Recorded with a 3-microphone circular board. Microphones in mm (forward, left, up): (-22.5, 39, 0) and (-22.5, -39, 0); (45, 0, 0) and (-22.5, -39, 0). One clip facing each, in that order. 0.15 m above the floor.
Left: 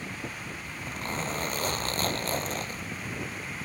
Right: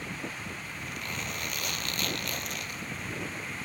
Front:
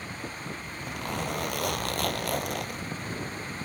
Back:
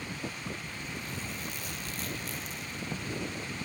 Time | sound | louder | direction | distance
0.7 | a zipper | left 3 dB, front 5 dB | 35° left | ?